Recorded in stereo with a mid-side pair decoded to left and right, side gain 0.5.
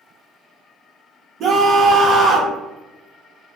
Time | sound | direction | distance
1.4 | a scream | 65° right | 0.7 m